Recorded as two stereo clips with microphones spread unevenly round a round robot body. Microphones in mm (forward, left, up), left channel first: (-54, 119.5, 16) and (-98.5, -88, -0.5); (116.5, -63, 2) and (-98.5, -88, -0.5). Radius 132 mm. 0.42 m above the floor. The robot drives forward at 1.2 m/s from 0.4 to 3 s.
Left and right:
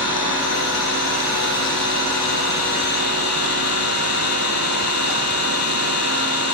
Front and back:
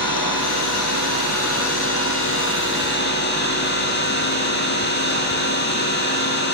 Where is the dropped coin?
I don't hear a dropped coin.